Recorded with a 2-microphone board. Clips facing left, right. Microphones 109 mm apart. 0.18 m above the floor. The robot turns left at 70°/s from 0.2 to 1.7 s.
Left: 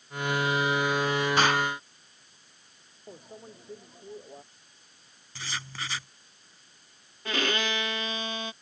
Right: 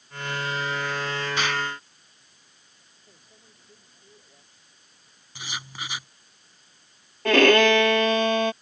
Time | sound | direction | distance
1.4 | an explosion | 40° left (ahead or behind) | ?
3.1 | a microwave | 65° left (ahead or behind) | ?
5.3 | writing | 15° right (ahead or behind) | ?
7.2 | a violin | 70° right (ahead or behind) | ?